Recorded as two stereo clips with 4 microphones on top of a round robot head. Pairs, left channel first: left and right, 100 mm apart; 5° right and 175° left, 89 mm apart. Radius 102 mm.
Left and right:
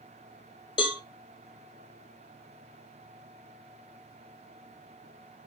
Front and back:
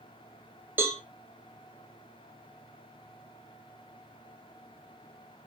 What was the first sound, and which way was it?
A cowbell, 115° left.